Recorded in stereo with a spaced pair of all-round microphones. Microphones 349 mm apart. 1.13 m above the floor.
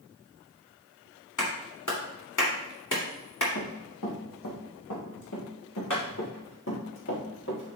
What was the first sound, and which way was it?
A clap, 65° left (ahead or behind).